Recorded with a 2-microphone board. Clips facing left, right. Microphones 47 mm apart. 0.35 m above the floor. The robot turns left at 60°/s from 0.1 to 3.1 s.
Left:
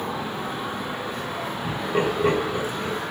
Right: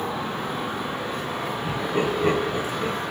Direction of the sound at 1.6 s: 35° left (ahead or behind).